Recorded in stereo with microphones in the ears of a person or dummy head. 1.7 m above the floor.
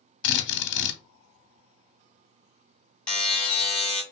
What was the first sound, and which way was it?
A drill, 65° left (ahead or behind).